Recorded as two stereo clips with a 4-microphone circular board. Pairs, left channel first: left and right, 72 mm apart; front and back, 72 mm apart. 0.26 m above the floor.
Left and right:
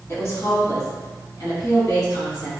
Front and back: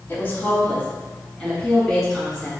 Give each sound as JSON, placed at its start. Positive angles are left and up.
{"t": 0.1, "sound": "a woman speaking", "azimuth_deg": 50, "distance_m": 1.5}